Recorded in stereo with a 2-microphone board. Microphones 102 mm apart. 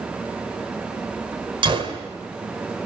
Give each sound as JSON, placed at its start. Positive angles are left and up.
{"t": 1.6, "sound": "a gunshot", "side_deg": -55, "distance_m": 1.9}